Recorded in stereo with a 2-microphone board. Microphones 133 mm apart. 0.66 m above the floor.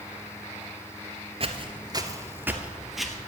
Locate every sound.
1.4 s footsteps: 45° right (ahead or behind), 0.9 m; by 3.2 s centre (ahead or behind), 1.1 m